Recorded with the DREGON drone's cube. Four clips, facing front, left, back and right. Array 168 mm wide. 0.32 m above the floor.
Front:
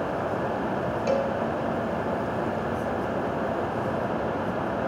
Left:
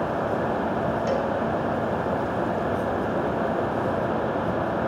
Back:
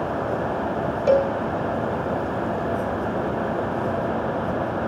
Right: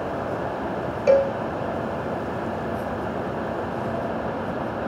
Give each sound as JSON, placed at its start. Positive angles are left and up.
{"t": 1.1, "sound": "a cowbell", "azimuth_deg": -130, "distance_m": 0.5}